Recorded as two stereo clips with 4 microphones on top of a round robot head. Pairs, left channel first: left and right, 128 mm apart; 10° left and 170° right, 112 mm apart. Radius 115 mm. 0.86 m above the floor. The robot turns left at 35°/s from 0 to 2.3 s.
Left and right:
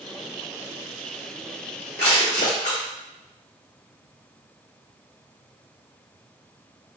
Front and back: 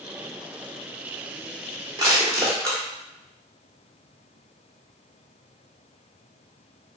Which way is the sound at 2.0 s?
140° left.